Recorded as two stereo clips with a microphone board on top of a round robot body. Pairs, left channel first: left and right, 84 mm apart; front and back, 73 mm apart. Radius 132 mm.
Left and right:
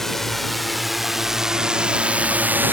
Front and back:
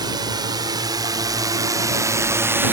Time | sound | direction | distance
0.0 | a drone | 175° left | ?